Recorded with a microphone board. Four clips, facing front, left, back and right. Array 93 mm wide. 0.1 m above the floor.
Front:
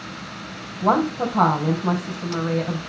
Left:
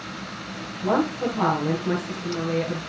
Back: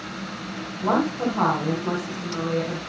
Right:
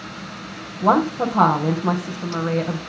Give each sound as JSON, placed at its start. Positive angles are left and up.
{"t": 0.8, "sound": "a woman speaking", "azimuth_deg": -70, "distance_m": 3.5}